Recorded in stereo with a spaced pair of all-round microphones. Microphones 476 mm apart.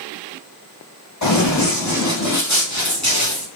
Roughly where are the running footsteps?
Left.